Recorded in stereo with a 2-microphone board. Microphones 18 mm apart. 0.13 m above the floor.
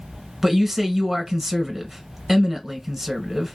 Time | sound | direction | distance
0.4 | a man speaking | 10° right (ahead or behind) | 1.3 m